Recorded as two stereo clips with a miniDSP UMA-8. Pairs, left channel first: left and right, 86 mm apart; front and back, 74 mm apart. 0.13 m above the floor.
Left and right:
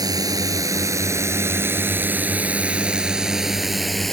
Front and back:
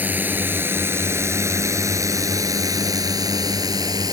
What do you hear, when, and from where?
0.0 s a drone: 120° right; by 4.1 s straight behind